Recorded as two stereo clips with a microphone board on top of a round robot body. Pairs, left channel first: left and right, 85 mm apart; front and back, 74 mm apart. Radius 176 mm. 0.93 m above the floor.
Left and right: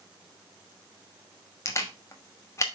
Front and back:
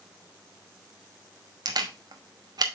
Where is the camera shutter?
150° left, 1.3 m.